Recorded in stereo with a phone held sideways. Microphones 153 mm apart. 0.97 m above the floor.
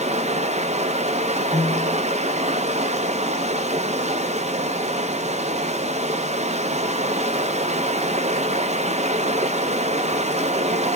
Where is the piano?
10° left (ahead or behind), 3.5 m.